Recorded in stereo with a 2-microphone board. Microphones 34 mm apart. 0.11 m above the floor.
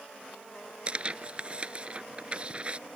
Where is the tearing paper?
30° right (ahead or behind).